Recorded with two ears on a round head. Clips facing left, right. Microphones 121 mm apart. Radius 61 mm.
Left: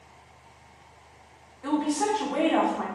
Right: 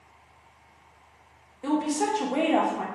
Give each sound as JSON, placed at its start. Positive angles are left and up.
{"t": 1.6, "sound": "a woman speaking", "side_deg": -20, "distance_m": 1.0}